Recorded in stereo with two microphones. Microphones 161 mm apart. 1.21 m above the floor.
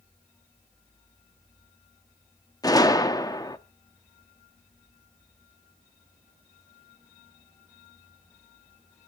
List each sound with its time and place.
2.6 s a gunshot: 25° left (ahead or behind), 0.7 m